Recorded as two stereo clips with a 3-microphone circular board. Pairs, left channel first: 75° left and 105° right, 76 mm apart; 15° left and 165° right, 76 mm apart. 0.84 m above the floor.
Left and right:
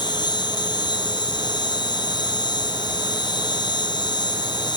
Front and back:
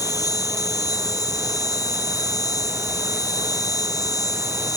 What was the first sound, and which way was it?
An insect, 55° left.